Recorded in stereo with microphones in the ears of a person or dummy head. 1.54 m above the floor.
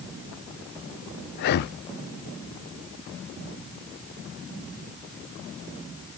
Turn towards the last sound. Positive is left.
turn(degrees=50)  # may be behind; listen again after turning